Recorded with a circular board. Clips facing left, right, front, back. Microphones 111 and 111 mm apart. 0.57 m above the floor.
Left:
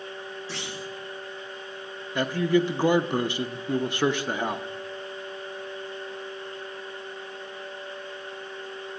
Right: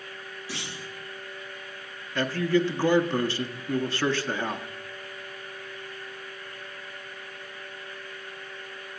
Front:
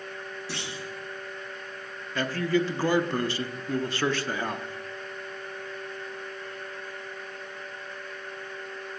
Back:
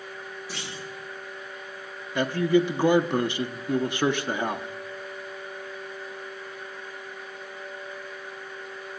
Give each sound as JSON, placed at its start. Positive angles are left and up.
{"t": 0.5, "sound": "a clunk", "azimuth_deg": -10, "distance_m": 7.0}
{"t": 2.1, "sound": "a man speaking", "azimuth_deg": 135, "distance_m": 0.6}